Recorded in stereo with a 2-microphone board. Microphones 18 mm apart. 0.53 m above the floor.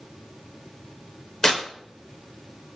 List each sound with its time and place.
1.4 s tearing paper: 35° left (ahead or behind), 2 m